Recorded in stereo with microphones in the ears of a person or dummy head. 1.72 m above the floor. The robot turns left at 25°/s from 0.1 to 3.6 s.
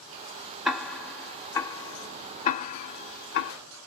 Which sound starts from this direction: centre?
Ticking, at 0.7 s.